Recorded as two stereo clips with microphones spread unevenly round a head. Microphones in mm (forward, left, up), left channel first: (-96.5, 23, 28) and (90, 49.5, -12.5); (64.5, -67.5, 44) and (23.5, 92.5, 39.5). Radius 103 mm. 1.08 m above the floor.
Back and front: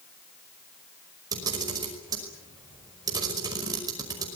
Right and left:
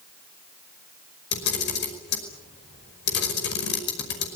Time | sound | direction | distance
1.3 | a camera shutter | 65° right | 5.5 m